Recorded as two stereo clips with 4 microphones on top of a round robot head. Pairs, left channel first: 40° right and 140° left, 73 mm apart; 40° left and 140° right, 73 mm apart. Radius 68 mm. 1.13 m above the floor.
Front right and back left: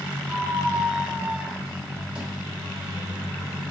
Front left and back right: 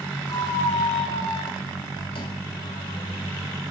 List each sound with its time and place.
0.3 s a squeak: 65° left, 1.2 m